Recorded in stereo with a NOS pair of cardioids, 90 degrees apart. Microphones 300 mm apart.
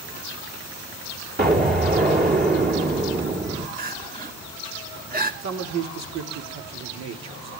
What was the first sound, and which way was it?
An explosion, 30° right.